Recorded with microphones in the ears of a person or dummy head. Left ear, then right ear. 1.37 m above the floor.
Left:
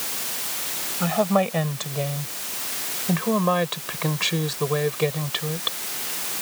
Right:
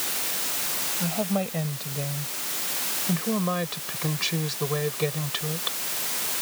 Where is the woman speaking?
55° left (ahead or behind); by 5.8 s 10° left (ahead or behind).